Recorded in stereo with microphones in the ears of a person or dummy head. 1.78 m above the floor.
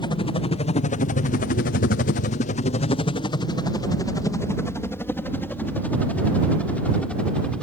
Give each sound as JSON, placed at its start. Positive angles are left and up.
{"t": 0.0, "sound": "a helicopter", "side_deg": 25}